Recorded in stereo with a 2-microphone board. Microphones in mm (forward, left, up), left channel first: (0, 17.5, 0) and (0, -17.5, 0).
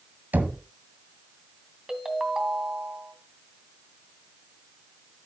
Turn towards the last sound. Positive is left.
turn(degrees=-20)  # may be behind; listen again after turning